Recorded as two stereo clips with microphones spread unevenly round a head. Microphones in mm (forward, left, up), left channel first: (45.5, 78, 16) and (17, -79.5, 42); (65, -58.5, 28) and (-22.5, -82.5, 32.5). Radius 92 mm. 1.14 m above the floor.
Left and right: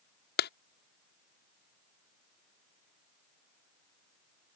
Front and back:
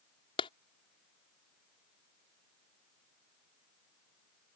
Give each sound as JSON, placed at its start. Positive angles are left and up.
{"t": 0.4, "sound": "a clap", "azimuth_deg": 65}